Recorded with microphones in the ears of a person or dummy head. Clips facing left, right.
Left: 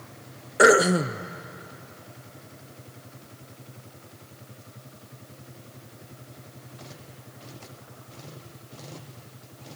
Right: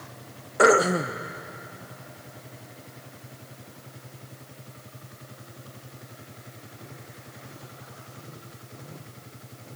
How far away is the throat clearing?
About 0.6 m.